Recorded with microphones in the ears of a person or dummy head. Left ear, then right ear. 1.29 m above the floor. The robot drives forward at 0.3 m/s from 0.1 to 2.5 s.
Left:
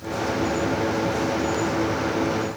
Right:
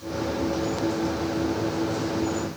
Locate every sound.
Only background noise.